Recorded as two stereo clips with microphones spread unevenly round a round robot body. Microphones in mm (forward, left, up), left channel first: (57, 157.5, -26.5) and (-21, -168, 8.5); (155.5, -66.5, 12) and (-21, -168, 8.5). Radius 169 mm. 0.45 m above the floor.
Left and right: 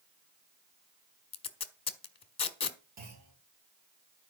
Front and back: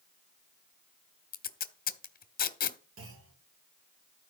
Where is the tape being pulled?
15° left, 1.3 m.